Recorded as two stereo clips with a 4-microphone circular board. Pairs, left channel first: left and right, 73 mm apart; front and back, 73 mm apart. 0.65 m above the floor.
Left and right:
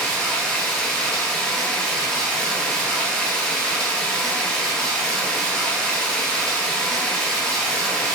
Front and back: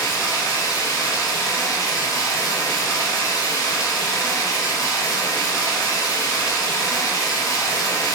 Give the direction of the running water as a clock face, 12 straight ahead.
12 o'clock.